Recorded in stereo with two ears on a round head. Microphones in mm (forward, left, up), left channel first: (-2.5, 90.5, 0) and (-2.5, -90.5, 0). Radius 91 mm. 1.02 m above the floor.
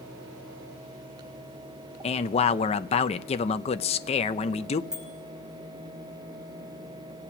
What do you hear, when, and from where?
2.0 s a man speaking: 30° left (ahead or behind), 0.5 m
4.9 s a bicycle bell: 5° right (ahead or behind), 5 m